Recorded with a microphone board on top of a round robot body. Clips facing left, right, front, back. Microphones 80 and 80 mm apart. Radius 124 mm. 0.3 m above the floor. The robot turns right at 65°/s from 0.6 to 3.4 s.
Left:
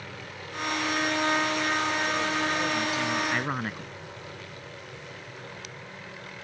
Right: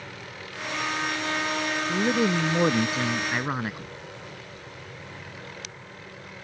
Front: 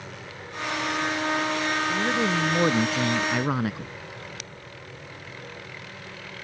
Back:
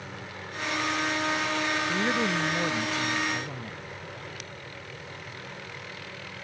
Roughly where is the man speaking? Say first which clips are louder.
Right 4 dB, front 3 dB; right.